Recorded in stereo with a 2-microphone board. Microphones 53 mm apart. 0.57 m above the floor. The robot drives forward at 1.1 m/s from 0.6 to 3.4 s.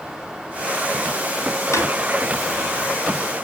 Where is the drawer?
70° left (ahead or behind), 3.5 m; by 1.9 s 75° left (ahead or behind), 3 m.